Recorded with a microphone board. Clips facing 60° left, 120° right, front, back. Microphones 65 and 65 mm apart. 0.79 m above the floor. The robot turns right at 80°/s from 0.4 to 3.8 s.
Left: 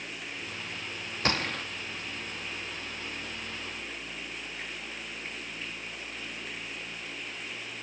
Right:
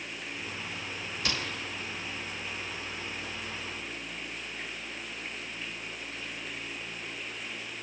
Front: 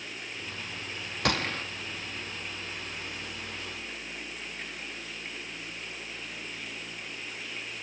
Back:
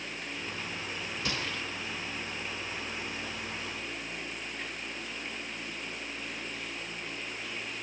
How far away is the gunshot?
About 0.8 m.